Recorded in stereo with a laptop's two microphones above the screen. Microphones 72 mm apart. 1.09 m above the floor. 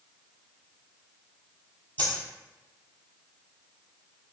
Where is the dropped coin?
25° left (ahead or behind), 1.3 m.